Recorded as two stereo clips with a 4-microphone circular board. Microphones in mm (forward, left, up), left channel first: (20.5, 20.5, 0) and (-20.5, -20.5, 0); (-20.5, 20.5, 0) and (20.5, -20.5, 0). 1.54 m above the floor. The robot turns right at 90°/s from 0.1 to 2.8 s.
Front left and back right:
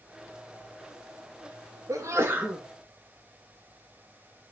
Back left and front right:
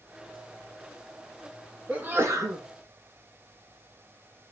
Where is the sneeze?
120° right, 1.9 m; by 2.6 s 50° right, 1.9 m.